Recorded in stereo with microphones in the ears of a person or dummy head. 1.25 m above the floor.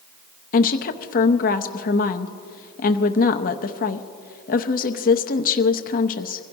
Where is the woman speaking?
45° left (ahead or behind), 0.7 m.